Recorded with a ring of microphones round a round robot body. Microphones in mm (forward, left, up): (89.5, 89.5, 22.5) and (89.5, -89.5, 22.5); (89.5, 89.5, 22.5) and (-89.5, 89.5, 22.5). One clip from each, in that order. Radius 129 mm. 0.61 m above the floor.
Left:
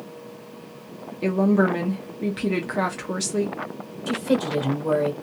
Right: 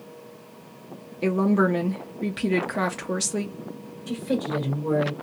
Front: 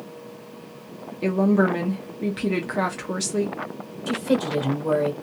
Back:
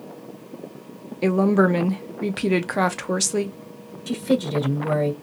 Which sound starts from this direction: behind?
A woman speaking, at 1.2 s.